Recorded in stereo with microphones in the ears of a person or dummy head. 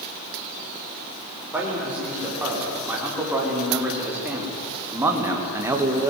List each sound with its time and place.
1.5 s a man speaking: 10° right (ahead or behind), 7 m; by 6.1 s 15° right (ahead or behind), 2.5 m